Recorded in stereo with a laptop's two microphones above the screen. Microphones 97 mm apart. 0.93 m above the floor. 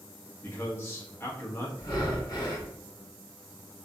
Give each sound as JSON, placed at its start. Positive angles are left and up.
{"t": 0.4, "sound": "a man speaking", "side_deg": 25, "distance_m": 0.8}
{"t": 1.8, "sound": "breathing", "side_deg": 40, "distance_m": 1.0}